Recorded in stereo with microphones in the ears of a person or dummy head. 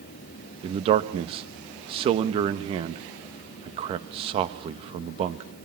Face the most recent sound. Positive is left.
turn(degrees=-35)  # may be behind; listen again after turning